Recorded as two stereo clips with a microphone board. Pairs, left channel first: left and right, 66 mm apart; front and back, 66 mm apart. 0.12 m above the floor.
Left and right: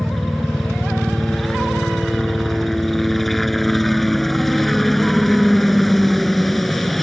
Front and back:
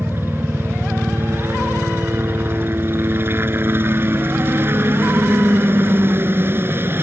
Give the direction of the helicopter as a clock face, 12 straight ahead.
6 o'clock.